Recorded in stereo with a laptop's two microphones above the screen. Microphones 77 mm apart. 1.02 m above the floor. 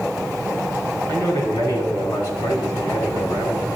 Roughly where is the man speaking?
Left.